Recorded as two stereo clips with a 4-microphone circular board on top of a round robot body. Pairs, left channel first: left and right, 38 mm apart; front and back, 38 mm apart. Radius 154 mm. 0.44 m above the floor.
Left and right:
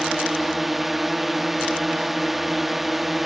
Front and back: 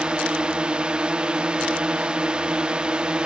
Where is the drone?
170° right.